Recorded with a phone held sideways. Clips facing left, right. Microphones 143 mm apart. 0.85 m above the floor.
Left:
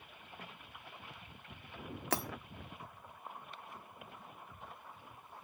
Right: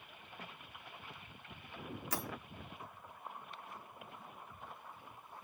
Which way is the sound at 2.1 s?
70° left (ahead or behind).